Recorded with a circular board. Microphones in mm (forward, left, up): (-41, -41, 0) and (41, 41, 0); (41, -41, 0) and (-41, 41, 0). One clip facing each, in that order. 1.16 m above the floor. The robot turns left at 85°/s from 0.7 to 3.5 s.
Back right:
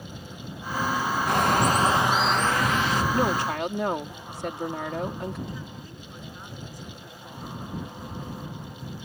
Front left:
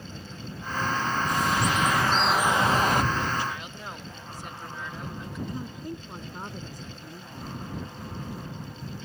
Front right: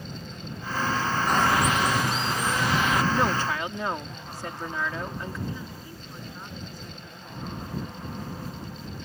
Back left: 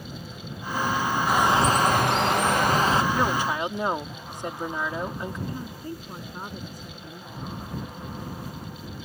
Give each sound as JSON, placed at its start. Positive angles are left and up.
{"t": 1.3, "sound": "a bird", "azimuth_deg": -140}
{"t": 3.1, "sound": "a woman speaking", "azimuth_deg": -125}
{"t": 5.5, "sound": "a woman speaking", "azimuth_deg": 90}